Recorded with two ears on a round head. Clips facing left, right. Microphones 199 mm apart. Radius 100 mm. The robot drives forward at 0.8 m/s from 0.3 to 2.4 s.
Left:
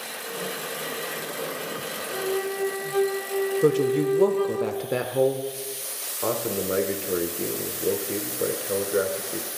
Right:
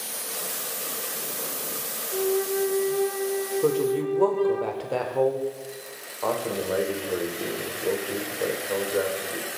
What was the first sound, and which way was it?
A flute, 65° left (ahead or behind).